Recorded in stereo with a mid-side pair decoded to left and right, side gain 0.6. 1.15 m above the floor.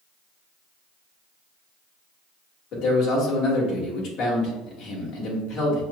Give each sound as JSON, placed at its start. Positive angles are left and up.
{"t": 2.7, "sound": "a man speaking", "azimuth_deg": 60, "distance_m": 1.6}